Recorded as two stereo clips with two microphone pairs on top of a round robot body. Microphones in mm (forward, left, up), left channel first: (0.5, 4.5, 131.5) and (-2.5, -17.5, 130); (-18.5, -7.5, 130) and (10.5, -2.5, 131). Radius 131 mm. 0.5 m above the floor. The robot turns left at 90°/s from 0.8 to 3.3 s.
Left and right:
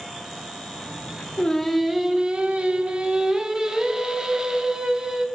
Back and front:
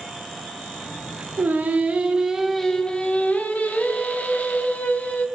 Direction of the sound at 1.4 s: 25° left.